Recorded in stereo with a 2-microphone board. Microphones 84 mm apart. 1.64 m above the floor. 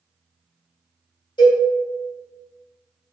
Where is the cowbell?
75° left (ahead or behind), 1.4 m.